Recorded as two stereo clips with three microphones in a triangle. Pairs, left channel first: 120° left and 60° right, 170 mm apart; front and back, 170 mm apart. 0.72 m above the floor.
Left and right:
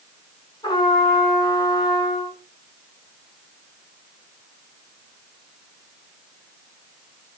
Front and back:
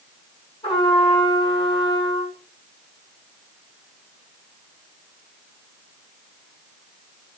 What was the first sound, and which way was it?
A trumpet, 55° left.